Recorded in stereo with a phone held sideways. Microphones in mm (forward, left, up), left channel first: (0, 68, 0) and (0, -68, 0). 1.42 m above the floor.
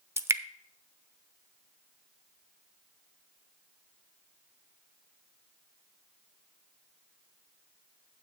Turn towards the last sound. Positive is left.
turn(degrees=-20)  # may be behind; listen again after turning